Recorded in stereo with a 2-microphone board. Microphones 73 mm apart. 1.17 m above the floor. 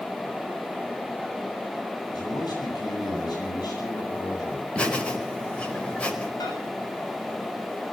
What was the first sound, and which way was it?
A man speaking, 70° left (ahead or behind).